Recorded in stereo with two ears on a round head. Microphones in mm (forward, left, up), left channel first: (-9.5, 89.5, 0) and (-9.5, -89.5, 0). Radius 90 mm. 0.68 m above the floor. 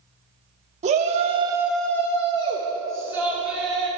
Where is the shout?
35° right (ahead or behind), 1.3 m; by 3.9 s 25° left (ahead or behind), 4 m.